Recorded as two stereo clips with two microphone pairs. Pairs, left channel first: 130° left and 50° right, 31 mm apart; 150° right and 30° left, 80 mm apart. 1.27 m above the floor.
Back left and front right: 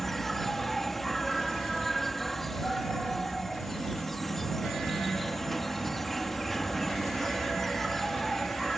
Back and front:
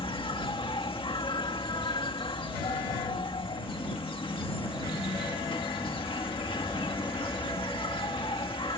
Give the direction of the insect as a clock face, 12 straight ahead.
5 o'clock.